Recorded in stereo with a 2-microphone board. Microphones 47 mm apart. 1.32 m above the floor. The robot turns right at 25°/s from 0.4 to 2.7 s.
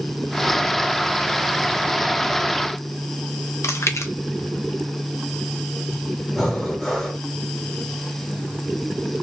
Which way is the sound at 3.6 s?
75° left (ahead or behind).